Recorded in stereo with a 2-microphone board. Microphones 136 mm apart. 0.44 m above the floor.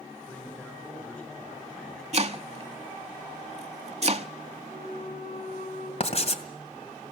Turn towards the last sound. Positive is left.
turn(degrees=45)  # may be behind; listen again after turning